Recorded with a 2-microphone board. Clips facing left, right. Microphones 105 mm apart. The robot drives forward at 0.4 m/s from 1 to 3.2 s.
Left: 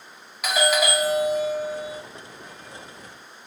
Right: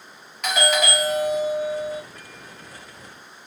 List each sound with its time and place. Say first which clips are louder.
0.4 s a doorbell: even; 5° left (ahead or behind), 1.1 m